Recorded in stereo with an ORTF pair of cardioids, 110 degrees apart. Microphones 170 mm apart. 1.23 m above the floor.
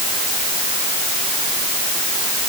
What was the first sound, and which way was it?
Only background noise.